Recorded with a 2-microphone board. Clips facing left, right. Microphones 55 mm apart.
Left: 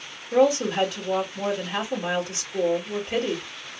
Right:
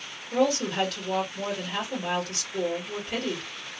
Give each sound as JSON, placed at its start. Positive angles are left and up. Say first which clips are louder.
{"t": 0.3, "sound": "a woman speaking", "louder": "left 5 dB", "side_deg": 10, "distance_m": 1.8}